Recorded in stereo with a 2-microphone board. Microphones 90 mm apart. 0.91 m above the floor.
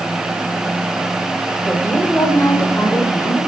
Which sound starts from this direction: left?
A woman speaking, at 1.6 s.